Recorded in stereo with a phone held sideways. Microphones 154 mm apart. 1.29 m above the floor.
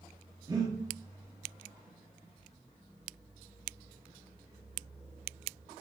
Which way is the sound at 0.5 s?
25° right (ahead or behind).